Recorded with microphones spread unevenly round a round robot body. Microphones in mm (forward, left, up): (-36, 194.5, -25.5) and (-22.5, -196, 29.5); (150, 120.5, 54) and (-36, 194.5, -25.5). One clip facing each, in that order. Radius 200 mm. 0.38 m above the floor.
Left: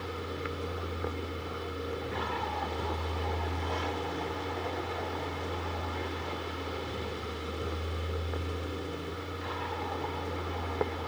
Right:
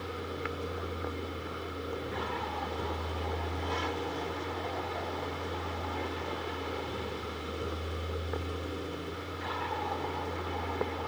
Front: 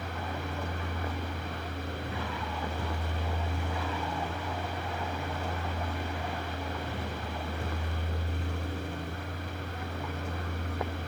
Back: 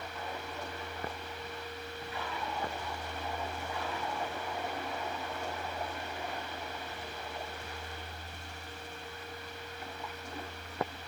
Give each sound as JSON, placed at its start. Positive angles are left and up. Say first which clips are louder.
{"t": 0.0, "sound": "a vehicle", "louder": "even, front 4 dB", "azimuth_deg": 0}